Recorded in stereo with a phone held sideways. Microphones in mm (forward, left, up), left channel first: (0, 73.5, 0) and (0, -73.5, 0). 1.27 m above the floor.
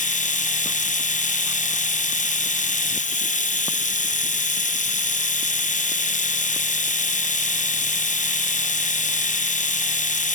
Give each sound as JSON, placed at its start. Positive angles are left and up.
{"t": 0.0, "sound": "a machine running", "side_deg": 55, "distance_m": 0.8}